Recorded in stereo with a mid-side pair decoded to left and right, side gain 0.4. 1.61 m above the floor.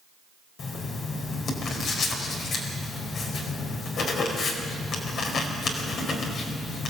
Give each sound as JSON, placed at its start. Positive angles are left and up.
{"t": 0.6, "sound": "writing", "azimuth_deg": 65, "distance_m": 4.5}